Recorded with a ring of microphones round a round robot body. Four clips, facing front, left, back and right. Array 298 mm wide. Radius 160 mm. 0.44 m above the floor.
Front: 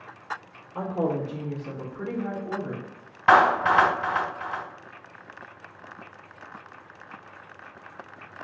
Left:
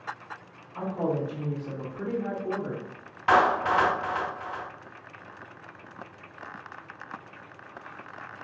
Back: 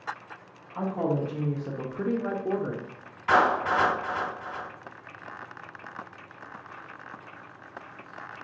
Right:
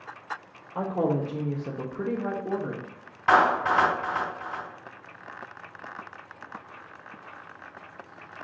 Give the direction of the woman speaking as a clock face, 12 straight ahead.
2 o'clock.